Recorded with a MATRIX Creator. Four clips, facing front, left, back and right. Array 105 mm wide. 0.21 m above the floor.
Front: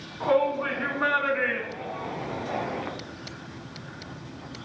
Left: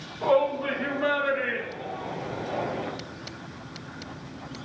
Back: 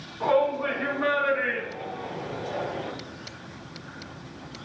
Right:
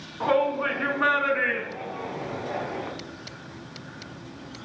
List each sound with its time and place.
0.2 s a shout: 80° right, 2.5 m; by 2.9 s 5° right, 1.8 m